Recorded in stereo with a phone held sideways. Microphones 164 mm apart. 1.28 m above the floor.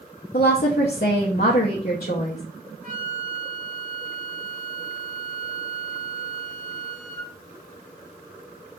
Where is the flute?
45° right (ahead or behind), 1.6 m.